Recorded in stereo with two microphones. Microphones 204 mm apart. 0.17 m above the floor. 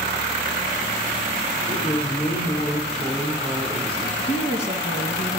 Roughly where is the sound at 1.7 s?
Left.